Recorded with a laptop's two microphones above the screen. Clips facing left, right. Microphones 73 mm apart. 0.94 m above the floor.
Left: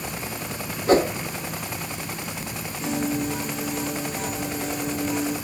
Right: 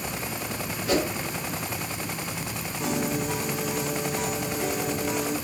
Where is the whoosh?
40° left (ahead or behind), 1.0 m.